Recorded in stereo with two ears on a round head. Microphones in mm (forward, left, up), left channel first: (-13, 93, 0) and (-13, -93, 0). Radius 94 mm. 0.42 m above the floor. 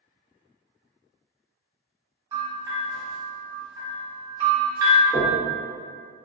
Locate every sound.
2.3 s a bell: 20° right (ahead or behind), 0.9 m
5.1 s knocking: 5° left (ahead or behind), 1.0 m